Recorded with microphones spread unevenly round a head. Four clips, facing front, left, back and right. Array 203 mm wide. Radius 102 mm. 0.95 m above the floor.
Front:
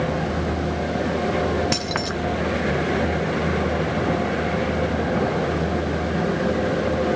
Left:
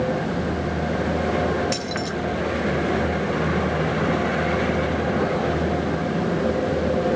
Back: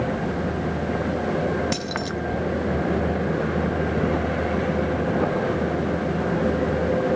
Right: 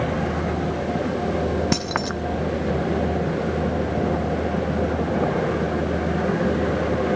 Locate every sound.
1.7 s keys jangling: 75° right, 0.7 m